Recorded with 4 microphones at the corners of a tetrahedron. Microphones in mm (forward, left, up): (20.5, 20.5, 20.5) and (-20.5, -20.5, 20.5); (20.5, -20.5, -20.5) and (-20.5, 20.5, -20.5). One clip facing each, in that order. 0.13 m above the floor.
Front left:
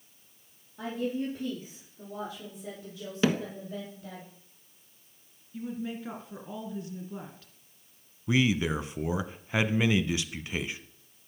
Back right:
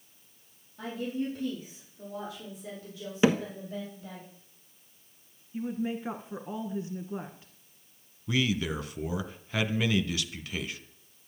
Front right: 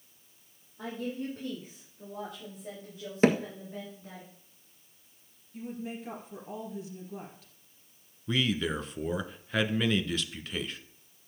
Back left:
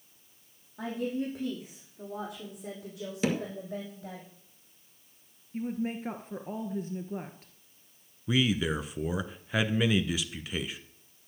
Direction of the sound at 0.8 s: 115° left.